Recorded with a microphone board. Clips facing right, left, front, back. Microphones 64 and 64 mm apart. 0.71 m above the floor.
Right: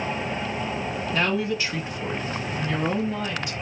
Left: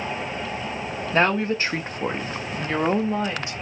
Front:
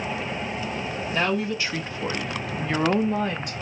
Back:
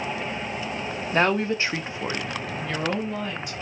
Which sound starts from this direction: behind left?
A woman speaking, at 1.1 s.